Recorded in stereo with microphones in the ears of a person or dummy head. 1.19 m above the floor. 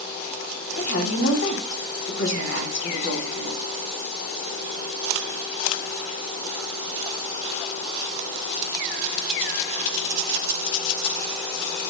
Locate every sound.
0.8 s a woman speaking: 65° left (ahead or behind), 3 m